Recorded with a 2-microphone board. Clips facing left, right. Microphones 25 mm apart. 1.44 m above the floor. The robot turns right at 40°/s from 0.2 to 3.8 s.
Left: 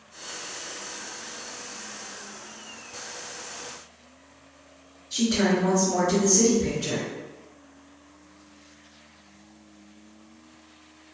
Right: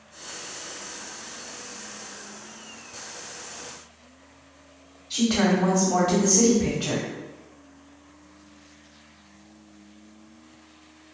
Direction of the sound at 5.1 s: 75° right (ahead or behind).